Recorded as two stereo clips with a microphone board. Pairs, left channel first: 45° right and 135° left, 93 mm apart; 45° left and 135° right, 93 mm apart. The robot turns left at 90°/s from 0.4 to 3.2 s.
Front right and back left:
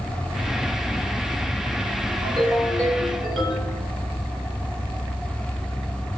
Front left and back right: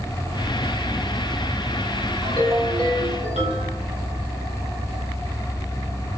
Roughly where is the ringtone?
Behind left.